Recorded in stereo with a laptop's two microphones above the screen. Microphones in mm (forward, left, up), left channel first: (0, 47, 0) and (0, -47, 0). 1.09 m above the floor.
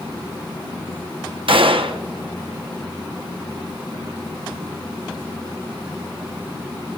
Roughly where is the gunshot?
Right.